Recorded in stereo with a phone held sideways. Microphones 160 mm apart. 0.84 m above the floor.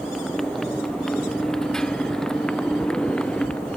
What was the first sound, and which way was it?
A motorcycle, centre (ahead or behind).